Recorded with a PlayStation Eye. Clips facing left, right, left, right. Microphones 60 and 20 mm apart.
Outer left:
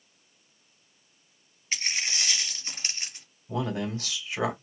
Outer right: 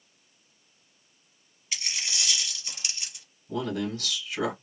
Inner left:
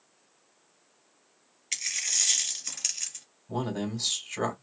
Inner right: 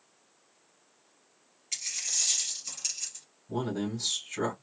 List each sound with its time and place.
1.7 s a dropped coin: 35° left (ahead or behind), 1.6 m
3.5 s a man speaking: 25° left (ahead or behind), 1.6 m